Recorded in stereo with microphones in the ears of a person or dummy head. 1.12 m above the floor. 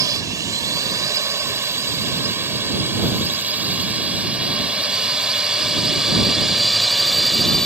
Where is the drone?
15° right (ahead or behind); by 7.7 s 5° left (ahead or behind).